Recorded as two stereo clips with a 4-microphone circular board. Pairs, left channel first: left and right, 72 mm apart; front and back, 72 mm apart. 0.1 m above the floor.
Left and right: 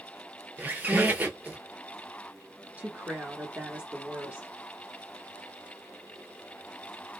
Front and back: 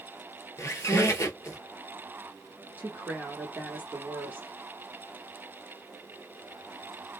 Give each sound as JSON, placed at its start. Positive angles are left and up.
{"t": 0.6, "sound": "a squeak", "azimuth_deg": -30, "distance_m": 0.7}
{"t": 2.8, "sound": "a woman speaking", "azimuth_deg": -145, "distance_m": 1.2}